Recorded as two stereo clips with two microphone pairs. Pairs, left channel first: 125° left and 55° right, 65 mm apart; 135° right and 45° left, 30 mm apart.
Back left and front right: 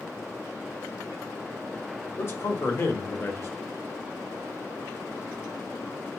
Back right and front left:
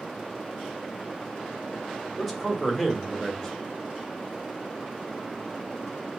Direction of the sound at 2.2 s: 130° left.